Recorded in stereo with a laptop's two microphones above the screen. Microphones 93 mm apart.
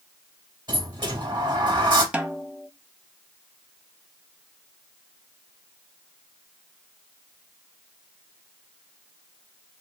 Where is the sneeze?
I don't hear a sneeze.